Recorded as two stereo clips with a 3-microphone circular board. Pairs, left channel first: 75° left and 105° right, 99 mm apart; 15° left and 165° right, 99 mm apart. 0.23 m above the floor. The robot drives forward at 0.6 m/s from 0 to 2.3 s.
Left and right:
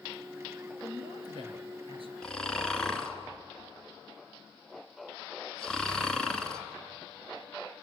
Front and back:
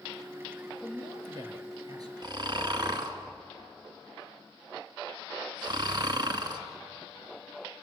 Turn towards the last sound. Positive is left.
turn(degrees=155)